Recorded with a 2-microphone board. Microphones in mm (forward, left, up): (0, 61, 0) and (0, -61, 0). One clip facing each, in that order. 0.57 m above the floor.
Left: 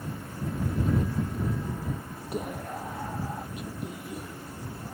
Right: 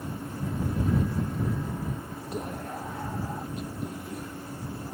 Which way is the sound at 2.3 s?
10° left (ahead or behind).